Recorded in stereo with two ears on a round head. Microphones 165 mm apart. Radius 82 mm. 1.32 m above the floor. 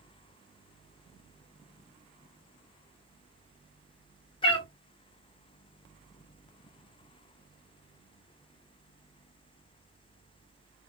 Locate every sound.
4.4 s a cat meowing: 25° left (ahead or behind), 0.8 m